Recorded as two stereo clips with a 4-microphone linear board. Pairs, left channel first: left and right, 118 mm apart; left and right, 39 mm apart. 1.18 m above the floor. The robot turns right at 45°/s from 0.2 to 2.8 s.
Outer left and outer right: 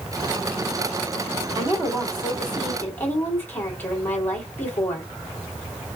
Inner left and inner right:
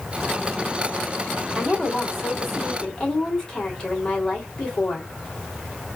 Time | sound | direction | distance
1.6 | a woman speaking | 40° right | 2.5 m